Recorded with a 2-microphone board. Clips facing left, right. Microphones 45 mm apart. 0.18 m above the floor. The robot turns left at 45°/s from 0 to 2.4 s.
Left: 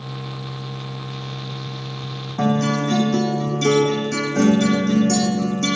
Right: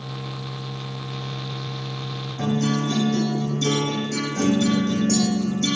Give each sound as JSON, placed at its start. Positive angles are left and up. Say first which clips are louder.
{"t": 2.4, "sound": "a guitar", "louder": "left 4 dB", "side_deg": 90, "distance_m": 1.5}